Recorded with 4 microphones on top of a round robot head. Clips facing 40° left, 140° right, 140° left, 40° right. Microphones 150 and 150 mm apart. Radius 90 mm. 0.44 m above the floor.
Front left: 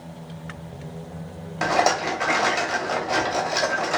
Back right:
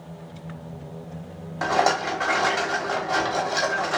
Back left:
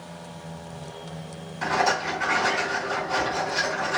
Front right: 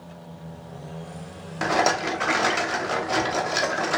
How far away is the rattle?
About 0.9 m.